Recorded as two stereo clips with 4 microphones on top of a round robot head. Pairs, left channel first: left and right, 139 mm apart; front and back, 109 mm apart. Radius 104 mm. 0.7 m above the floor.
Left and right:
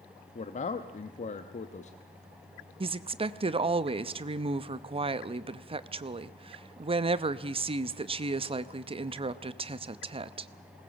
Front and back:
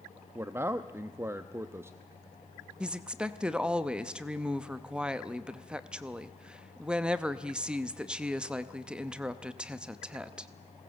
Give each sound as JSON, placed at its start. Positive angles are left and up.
{"t": 0.3, "sound": "a man speaking", "azimuth_deg": 115, "distance_m": 0.8}
{"t": 2.8, "sound": "a woman speaking", "azimuth_deg": -100, "distance_m": 0.7}